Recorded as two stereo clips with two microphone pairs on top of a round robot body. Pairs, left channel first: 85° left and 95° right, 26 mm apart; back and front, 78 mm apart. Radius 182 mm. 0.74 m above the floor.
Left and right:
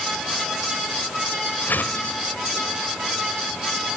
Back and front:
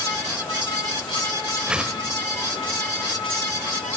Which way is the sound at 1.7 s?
80° left.